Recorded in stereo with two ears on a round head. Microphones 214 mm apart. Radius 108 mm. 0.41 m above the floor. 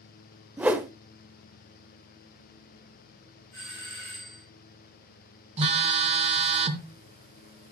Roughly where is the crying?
No crying in this recording.